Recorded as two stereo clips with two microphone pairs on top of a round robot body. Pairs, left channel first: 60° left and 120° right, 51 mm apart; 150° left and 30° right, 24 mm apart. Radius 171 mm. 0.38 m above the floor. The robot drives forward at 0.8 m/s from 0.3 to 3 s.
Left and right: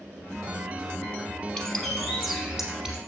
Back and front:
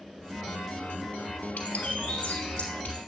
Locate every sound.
1.6 s a bird: 135° left, 0.9 m; by 3.0 s 160° left, 1.9 m